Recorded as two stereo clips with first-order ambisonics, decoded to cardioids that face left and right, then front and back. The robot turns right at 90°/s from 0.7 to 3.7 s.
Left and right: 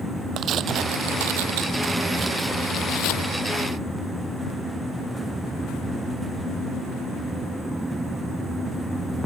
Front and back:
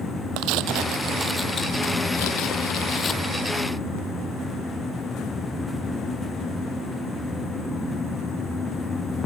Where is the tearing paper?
145° right; by 3.3 s 85° left.